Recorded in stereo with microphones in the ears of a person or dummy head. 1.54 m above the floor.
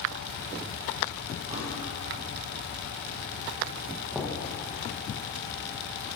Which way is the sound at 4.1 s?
5° right (ahead or behind).